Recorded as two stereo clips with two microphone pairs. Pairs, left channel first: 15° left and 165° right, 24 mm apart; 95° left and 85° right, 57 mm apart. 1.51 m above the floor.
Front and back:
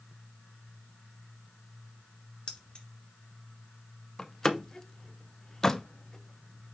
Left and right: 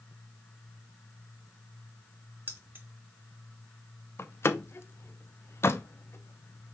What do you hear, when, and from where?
2.5 s keys jangling: 30° right, 1.3 m
4.2 s a door slam: 75° left, 0.6 m